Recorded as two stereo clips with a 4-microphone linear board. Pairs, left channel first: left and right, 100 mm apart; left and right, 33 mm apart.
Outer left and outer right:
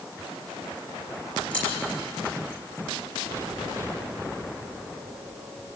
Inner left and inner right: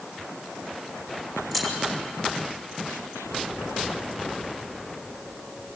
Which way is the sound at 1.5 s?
10° left (ahead or behind).